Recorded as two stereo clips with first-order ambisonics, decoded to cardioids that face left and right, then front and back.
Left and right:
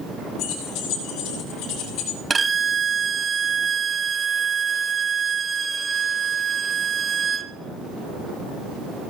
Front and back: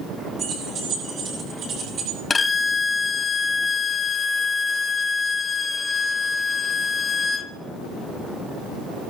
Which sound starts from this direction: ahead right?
A violin, at 2.3 s.